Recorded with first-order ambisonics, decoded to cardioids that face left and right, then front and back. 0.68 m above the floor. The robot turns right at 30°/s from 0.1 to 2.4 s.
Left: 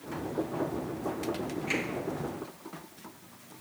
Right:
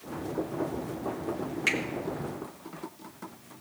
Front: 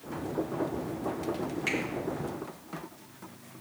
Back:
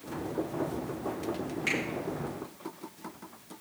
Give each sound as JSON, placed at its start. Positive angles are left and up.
{"t": 1.7, "sound": "a finger snap", "azimuth_deg": -85, "distance_m": 9.0}